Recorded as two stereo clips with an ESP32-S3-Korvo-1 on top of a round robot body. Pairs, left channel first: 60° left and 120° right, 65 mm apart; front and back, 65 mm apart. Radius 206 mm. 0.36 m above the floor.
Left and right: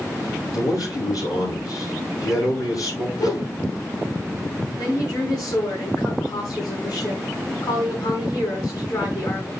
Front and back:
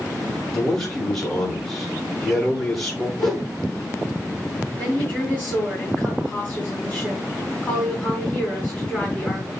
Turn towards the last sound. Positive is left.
turn(degrees=70)